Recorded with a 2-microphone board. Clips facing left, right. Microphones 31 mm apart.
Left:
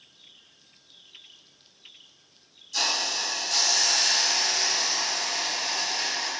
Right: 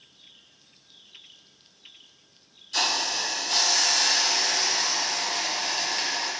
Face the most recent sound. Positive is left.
turn(degrees=-50)  # may be behind; listen again after turning